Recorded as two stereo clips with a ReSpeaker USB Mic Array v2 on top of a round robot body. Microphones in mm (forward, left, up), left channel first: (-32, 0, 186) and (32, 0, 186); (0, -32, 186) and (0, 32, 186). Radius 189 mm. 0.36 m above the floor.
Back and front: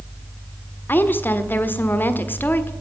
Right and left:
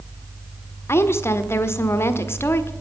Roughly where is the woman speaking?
Behind right.